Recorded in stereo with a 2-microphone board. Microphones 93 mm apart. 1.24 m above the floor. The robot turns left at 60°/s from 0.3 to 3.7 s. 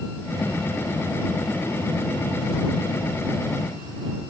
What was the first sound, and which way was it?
Only background noise.